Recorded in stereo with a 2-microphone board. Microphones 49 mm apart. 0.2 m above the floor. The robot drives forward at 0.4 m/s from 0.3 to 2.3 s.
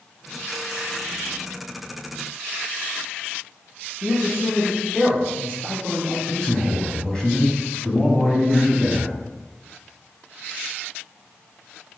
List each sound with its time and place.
4.0 s a man speaking: 15° left (ahead or behind), 1.3 m
6.3 s a man speaking: 20° left (ahead or behind), 1.0 m